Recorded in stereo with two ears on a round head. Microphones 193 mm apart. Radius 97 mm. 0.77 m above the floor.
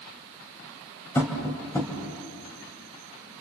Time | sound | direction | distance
1.1 | tapping | 10° left (ahead or behind) | 3.5 m